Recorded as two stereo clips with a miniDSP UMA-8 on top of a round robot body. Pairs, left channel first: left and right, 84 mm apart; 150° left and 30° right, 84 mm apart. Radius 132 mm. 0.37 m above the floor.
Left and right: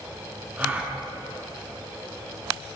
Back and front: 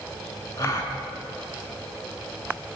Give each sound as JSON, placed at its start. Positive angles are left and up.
{"t": 0.6, "sound": "a gasp", "azimuth_deg": -165, "distance_m": 4.5}